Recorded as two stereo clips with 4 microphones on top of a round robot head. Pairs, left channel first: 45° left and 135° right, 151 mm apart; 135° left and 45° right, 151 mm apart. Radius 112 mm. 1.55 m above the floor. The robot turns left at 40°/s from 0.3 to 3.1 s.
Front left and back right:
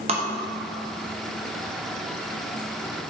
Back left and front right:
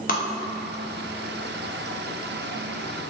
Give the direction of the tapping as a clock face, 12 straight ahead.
6 o'clock.